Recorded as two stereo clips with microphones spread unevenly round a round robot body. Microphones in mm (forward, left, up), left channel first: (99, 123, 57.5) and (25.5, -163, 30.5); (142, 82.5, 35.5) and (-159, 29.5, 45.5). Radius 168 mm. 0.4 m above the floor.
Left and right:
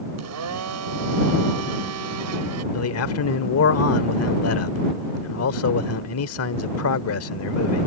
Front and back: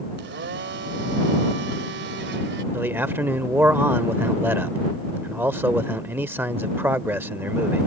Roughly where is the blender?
Behind right.